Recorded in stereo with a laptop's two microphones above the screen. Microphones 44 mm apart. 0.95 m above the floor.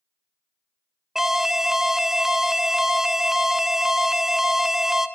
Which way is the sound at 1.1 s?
5° right (ahead or behind).